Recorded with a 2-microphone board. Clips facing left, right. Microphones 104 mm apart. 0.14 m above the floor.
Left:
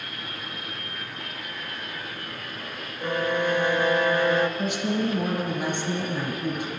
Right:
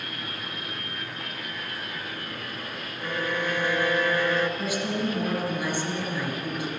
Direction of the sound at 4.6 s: 25° left (ahead or behind).